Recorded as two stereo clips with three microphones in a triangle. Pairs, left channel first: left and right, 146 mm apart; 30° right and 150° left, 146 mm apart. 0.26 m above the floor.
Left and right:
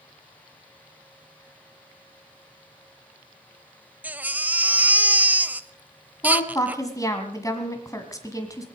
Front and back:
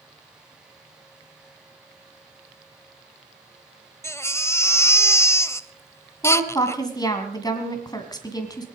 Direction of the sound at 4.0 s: 35° right.